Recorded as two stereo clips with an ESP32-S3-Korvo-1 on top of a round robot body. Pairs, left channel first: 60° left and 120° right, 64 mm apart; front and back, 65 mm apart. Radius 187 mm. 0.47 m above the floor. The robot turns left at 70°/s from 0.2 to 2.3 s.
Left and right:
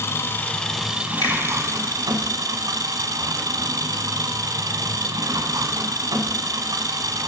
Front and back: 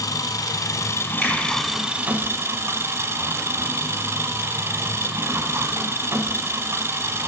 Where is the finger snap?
75° left, 3.5 m; by 1.4 s 65° left, 3.5 m.